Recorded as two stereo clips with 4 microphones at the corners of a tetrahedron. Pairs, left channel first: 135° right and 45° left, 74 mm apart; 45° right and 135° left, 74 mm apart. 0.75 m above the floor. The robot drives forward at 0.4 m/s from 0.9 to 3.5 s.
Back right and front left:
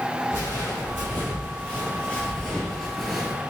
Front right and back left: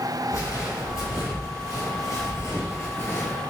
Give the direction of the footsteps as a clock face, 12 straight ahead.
3 o'clock.